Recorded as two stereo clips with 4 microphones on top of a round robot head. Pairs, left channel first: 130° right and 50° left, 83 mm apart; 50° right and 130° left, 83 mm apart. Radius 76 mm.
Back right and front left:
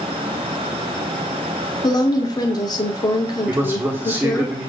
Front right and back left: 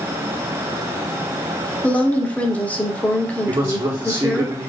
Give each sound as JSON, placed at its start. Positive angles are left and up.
{"t": 1.8, "sound": "a woman speaking", "azimuth_deg": -115, "distance_m": 1.1}
{"t": 3.5, "sound": "a man speaking", "azimuth_deg": 100, "distance_m": 1.3}